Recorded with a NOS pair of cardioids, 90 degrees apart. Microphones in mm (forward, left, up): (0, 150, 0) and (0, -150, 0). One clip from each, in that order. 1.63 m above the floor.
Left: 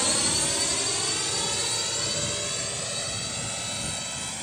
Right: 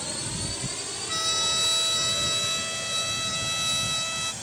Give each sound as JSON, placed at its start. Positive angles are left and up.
{"t": 0.0, "sound": "a drone", "azimuth_deg": 65}
{"t": 1.1, "sound": "a trumpet", "azimuth_deg": -70}